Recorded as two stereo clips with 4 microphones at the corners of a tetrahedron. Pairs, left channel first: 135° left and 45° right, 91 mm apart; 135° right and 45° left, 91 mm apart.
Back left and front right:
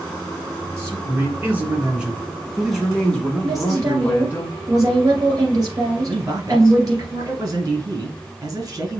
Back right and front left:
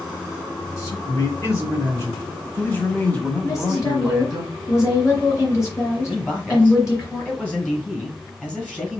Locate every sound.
0.8 s a man speaking: 95° right, 2.0 m; by 4.4 s 130° left, 1.6 m
3.4 s a woman speaking: 85° right, 2.5 m
6.1 s a man speaking: 65° right, 1.8 m